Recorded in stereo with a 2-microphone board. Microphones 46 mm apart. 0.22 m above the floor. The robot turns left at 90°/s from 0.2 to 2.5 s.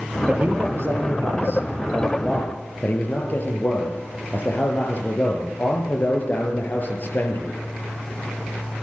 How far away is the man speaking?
About 5 m.